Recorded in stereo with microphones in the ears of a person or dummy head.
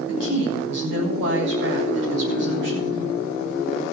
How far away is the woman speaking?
About 8 m.